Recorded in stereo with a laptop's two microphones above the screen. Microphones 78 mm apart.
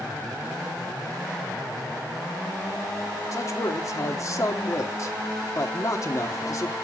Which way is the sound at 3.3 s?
45° left (ahead or behind).